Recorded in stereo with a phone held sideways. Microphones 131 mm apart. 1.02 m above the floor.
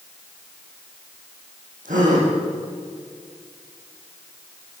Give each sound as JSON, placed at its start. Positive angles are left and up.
{"t": 1.9, "sound": "a gasp", "side_deg": -85, "distance_m": 9.5}